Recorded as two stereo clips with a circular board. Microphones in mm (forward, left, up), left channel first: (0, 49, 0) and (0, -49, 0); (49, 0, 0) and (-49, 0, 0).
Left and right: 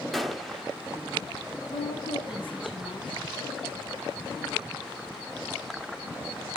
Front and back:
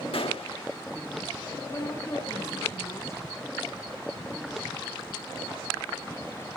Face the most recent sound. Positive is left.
turn(degrees=60)